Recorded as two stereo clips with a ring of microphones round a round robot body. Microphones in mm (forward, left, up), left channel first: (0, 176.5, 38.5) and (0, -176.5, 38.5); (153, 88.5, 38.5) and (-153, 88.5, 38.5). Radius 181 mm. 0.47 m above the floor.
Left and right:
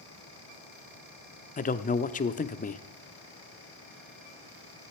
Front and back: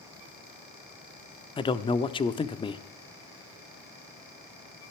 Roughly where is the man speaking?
Ahead left.